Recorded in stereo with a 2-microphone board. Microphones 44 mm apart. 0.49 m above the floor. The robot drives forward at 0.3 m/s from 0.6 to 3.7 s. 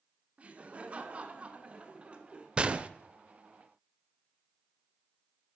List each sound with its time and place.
0.4 s laughter: 30° right (ahead or behind), 1.4 m; by 2.5 s 25° right (ahead or behind), 1.7 m
2.6 s a gunshot: 20° right (ahead or behind), 0.6 m; by 2.9 s 25° right (ahead or behind), 0.5 m